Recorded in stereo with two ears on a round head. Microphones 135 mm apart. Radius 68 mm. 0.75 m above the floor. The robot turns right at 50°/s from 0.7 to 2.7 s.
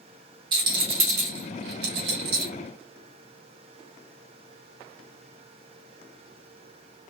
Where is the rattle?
30° right (ahead or behind), 1.6 m; by 2.5 s 55° right (ahead or behind), 1.6 m.